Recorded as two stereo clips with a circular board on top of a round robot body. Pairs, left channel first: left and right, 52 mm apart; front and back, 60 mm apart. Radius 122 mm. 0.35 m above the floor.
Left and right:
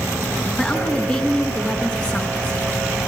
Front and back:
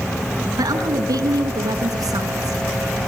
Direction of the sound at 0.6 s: 160° left.